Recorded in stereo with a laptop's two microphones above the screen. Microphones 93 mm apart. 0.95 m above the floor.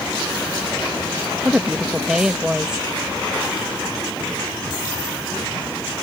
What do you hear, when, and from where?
1.4 s a woman speaking: 10° right (ahead or behind)